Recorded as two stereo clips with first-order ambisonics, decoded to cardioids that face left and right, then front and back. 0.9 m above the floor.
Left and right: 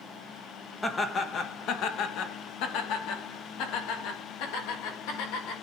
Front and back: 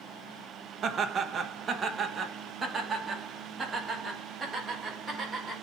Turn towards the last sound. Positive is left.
turn(degrees=100)